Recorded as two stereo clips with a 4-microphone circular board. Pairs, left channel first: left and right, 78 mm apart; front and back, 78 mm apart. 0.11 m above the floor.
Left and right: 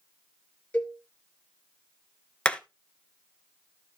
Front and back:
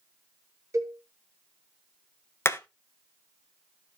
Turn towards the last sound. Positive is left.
turn(degrees=25)